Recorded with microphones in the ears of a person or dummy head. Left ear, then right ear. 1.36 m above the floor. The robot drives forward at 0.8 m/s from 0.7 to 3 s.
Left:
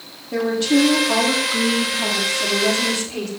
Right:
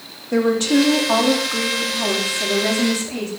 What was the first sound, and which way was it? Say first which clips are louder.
A woman speaking: right 1 dB; 80° right.